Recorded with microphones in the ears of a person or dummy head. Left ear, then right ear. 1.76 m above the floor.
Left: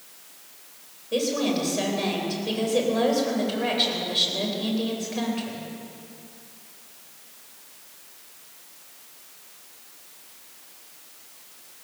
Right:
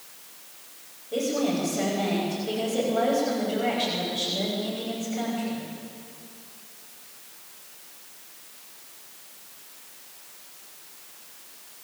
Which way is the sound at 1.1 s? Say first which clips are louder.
Left 1 dB; 50° left (ahead or behind).